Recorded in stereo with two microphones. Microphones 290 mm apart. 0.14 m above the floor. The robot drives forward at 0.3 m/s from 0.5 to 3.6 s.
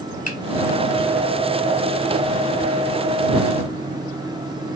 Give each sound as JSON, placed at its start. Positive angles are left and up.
{"t": 0.3, "sound": "a finger snap", "side_deg": 30, "distance_m": 1.0}